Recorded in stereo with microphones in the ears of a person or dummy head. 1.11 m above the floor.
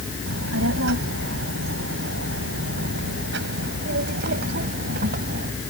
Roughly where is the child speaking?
Right.